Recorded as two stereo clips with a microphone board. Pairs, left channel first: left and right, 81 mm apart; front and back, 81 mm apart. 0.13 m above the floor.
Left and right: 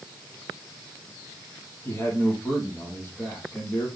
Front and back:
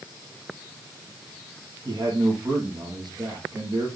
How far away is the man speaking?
About 5 m.